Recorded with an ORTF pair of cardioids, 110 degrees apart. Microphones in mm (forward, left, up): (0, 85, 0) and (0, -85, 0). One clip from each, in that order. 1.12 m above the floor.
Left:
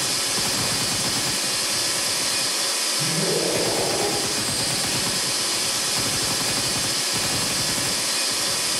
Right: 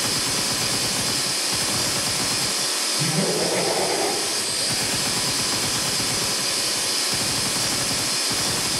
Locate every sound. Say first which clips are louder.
0.0 s a machine running: even; 5° left, 4 m
3.0 s laughter: right 1 dB; 40° right, 5 m